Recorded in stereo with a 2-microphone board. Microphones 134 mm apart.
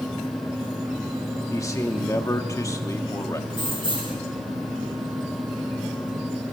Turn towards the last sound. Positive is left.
turn(degrees=-40)  # may be behind; listen again after turning